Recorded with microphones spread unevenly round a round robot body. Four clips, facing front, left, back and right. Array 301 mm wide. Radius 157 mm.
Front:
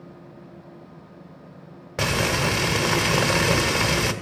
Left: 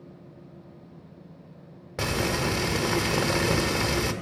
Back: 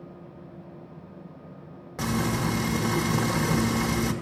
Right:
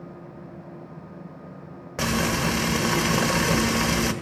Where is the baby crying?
I don't hear a baby crying.